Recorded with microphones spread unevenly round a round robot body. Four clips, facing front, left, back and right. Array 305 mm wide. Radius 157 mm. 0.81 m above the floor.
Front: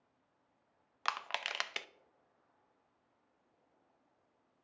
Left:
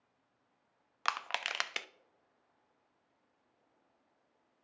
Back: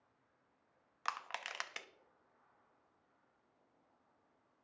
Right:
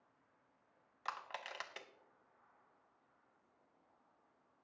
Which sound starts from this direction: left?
Crushing, at 1.1 s.